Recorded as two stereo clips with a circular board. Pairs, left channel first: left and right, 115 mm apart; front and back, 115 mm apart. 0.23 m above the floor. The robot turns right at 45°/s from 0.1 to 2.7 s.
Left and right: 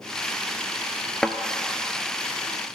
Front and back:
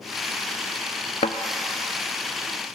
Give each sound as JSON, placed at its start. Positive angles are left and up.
{"t": 1.2, "sound": "a thud", "azimuth_deg": 0, "distance_m": 0.5}